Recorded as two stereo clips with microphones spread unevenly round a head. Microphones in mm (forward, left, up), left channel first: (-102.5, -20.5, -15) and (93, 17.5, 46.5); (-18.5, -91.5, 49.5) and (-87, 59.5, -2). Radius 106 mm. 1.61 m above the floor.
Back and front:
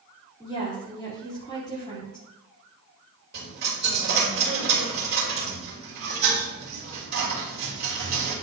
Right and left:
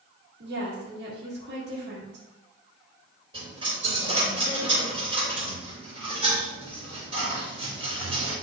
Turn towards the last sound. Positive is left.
turn(degrees=40)